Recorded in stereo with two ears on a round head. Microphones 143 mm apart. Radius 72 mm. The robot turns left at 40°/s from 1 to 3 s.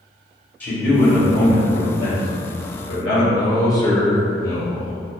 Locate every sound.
0.6 s a man speaking: 165° left, 1.5 m; by 3.2 s 85° left, 1.5 m
3.3 s a man speaking: 20° left (ahead or behind), 0.6 m